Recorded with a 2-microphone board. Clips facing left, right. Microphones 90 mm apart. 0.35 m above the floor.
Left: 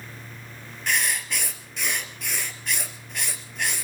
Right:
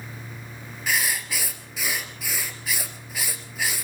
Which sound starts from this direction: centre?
Writing, at 0.9 s.